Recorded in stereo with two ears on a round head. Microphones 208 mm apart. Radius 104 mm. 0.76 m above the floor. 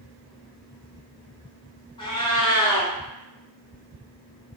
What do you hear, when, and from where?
2.0 s a cat meowing: 20° left (ahead or behind), 0.7 m